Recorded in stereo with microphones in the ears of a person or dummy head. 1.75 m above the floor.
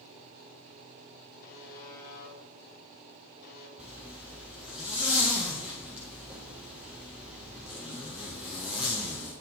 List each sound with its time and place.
1.4 s a buzzer: 55° left (ahead or behind), 1.6 m
3.8 s a zipper: centre (ahead or behind), 0.6 m